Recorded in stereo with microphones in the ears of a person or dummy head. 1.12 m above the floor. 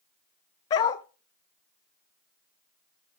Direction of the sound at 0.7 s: 20° left (ahead or behind).